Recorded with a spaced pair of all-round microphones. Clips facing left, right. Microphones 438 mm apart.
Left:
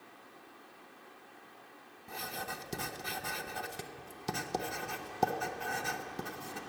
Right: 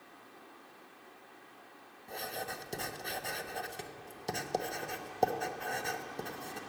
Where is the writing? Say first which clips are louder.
Right 2 dB; 25° left (ahead or behind), 0.5 m.